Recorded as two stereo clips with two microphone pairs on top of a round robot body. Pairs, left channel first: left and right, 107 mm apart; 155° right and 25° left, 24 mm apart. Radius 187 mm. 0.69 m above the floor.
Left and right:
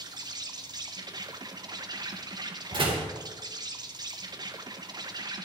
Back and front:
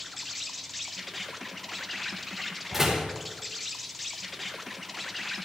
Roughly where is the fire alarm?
I don't hear a fire alarm.